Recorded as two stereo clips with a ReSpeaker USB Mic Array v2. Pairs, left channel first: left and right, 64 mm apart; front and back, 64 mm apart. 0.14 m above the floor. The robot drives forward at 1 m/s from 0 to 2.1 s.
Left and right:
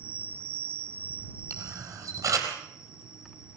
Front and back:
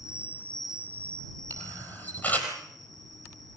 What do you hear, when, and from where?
0.0 s an insect: 25° right, 0.8 m; by 3.6 s 170° right, 1.5 m
1.5 s a camera shutter: 55° right, 5.5 m; by 2.5 s 60° right, 5.5 m